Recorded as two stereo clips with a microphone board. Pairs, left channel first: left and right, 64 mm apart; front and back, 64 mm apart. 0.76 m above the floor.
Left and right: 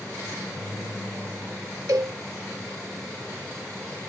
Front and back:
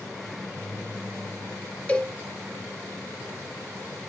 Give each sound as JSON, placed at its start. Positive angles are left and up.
{"t": 1.9, "sound": "a cowbell", "azimuth_deg": -70, "distance_m": 0.8}